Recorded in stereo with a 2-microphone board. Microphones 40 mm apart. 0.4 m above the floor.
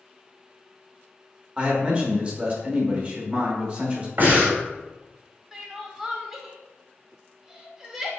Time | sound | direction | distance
1.6 | a man speaking | 30° right (ahead or behind) | 0.8 m
4.2 | breathing | 55° right (ahead or behind) | 1.9 m
5.5 | crying | 10° right (ahead or behind) | 0.7 m